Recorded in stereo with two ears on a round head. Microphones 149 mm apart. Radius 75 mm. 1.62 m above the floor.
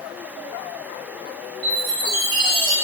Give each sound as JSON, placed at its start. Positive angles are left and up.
{"t": 1.6, "sound": "a chime", "side_deg": -65, "distance_m": 2.0}